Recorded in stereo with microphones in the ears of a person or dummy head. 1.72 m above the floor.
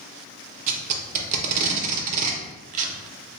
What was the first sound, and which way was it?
Tape being pulled, 40° right (ahead or behind).